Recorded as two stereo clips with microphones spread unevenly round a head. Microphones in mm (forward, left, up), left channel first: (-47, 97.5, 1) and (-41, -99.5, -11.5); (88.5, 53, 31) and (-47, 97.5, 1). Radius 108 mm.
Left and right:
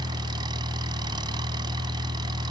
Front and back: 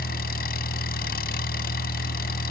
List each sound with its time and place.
0.0 s an engine running: 15° right